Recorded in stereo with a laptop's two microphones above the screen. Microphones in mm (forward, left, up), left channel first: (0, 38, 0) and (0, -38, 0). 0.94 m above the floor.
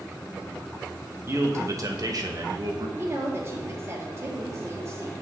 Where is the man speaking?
35° right (ahead or behind), 1.2 m; by 2.9 s 55° right (ahead or behind), 1.3 m.